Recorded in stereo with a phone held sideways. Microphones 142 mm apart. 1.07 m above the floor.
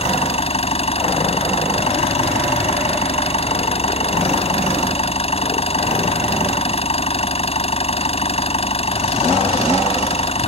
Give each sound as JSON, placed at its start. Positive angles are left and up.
{"t": 0.0, "sound": "an engine running", "side_deg": 45}